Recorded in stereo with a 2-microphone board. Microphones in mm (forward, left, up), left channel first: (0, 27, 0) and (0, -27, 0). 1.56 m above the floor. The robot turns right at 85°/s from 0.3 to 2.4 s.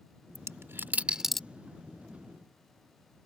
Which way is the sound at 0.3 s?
70° right (ahead or behind).